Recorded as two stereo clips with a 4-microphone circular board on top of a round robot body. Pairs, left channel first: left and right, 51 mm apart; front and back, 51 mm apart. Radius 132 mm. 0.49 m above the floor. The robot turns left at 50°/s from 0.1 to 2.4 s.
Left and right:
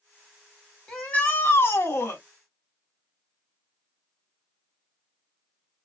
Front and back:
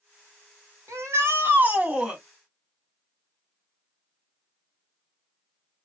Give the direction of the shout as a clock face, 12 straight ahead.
7 o'clock.